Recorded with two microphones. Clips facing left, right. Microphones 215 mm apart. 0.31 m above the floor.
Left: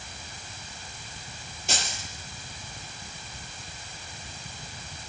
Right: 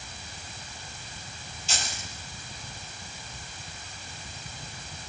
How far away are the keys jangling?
About 5 m.